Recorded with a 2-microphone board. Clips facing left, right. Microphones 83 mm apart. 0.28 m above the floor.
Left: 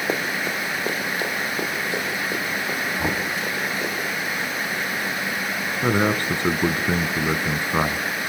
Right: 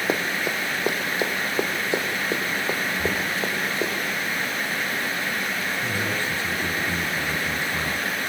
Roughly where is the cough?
No cough in this recording.